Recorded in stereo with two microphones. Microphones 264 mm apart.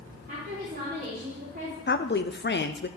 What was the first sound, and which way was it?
A woman speaking, 30° right (ahead or behind).